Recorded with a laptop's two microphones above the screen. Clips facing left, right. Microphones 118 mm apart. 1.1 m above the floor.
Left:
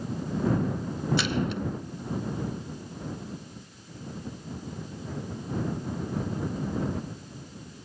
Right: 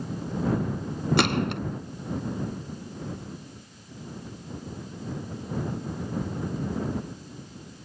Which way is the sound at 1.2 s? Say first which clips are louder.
Right 6 dB; 65° right (ahead or behind).